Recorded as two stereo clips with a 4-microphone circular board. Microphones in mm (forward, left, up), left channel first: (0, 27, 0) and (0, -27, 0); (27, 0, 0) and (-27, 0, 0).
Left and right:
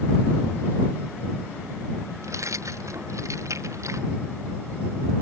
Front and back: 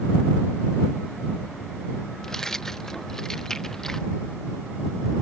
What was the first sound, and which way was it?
Keys jangling, 80° right.